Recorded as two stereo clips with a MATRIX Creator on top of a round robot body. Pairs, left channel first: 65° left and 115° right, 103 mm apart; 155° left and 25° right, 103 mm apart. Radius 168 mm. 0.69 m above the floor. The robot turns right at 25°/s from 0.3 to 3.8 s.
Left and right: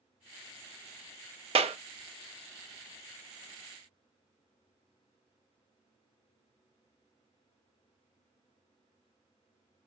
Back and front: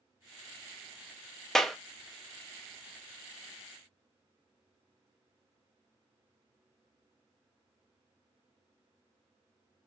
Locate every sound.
1.6 s a clap: 115° right, 0.7 m; by 1.8 s 110° right, 0.7 m